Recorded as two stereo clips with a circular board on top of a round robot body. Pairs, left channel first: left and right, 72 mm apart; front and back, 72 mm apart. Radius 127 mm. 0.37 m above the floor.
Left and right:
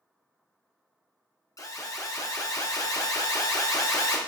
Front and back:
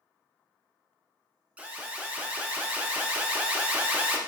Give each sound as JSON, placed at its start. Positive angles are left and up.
{"t": 1.6, "sound": "an alarm", "azimuth_deg": 115, "distance_m": 0.7}